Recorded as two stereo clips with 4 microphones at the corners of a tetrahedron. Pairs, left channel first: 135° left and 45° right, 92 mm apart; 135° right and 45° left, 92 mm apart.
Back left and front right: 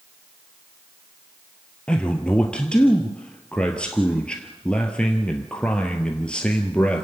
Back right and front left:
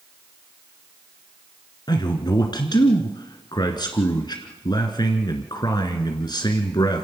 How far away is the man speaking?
About 1.7 m.